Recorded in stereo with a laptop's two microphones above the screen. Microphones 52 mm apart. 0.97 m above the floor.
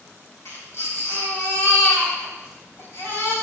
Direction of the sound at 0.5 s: 60° left (ahead or behind).